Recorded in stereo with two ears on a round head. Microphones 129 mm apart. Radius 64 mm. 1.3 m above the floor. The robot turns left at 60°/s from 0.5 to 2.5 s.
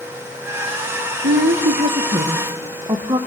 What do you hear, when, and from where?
1.2 s a woman speaking: 75° right, 1.3 m; by 3.2 s 150° right, 1.3 m